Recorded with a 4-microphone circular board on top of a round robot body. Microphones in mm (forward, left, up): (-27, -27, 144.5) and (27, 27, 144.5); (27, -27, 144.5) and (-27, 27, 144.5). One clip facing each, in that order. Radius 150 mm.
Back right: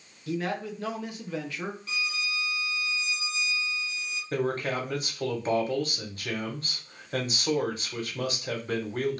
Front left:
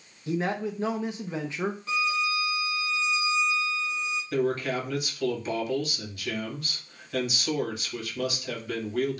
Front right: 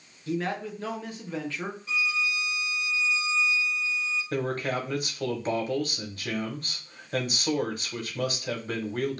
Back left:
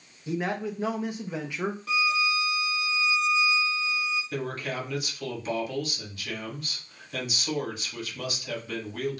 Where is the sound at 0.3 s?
80° left, 0.7 m.